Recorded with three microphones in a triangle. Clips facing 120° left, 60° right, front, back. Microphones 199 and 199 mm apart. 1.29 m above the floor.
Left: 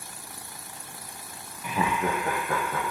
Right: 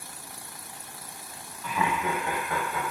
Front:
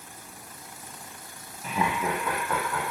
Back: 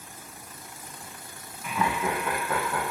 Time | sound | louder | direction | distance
1.6 | laughter | left 2 dB, even | 45° left | 0.6 m